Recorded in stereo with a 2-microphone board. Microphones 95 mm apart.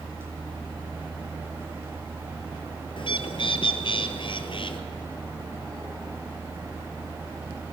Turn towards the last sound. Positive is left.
turn(degrees=60)  # may be behind; listen again after turning